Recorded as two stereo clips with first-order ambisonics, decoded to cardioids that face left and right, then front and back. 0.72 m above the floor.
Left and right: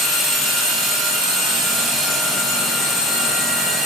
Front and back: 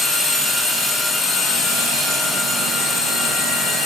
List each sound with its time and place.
Only background noise.